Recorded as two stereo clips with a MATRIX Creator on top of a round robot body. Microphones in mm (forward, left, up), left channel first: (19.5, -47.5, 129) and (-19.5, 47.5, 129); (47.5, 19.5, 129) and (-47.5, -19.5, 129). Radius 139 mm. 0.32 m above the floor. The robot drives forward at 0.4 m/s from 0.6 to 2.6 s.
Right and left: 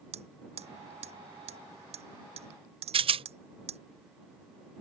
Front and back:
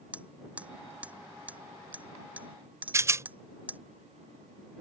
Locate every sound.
0.1 s hammering: 125° left; by 3.8 s 130° left
2.9 s a rattle: 140° left